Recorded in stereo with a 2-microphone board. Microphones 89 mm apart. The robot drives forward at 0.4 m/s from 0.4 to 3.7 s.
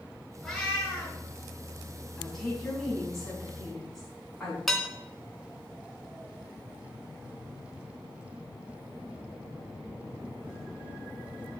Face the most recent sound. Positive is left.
turn(degrees=0)  # may be behind; listen again after turning